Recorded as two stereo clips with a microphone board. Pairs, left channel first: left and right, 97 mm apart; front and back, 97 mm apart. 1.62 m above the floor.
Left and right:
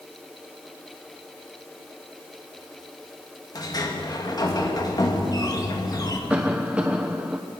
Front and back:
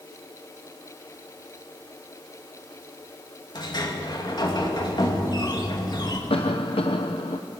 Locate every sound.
3.5 s a sliding door: 45° left, 2.5 m
6.3 s a cough: 15° right, 0.9 m